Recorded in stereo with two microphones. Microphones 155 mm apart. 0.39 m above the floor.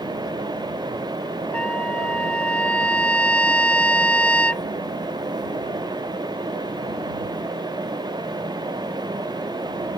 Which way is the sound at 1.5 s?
5° left (ahead or behind).